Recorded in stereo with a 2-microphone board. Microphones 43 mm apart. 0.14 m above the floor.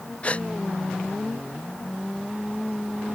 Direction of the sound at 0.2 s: 30° left (ahead or behind).